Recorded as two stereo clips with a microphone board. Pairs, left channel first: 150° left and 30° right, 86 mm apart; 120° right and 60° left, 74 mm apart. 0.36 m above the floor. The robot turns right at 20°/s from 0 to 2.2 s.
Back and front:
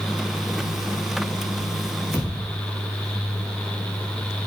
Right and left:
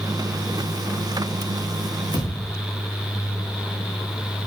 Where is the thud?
105° right, 4.5 m.